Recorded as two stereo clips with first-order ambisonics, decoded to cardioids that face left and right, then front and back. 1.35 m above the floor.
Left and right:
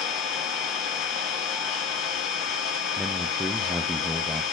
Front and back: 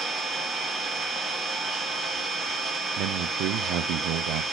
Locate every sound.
0.0 s an engine running: 95° left, 1.8 m
3.0 s a man speaking: straight behind, 0.5 m